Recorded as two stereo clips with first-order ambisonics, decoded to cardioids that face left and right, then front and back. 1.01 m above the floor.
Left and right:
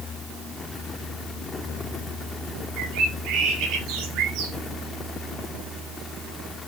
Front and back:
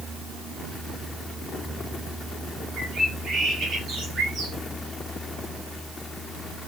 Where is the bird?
120° right, 3 m.